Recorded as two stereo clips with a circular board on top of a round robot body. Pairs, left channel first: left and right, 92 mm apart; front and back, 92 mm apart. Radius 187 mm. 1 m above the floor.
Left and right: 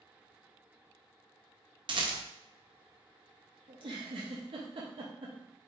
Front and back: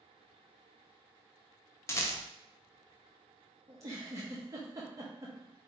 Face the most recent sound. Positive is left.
turn(degrees=-125)